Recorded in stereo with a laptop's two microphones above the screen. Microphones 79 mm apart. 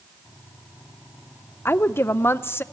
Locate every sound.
1.6 s a woman speaking: 30° left (ahead or behind), 0.5 m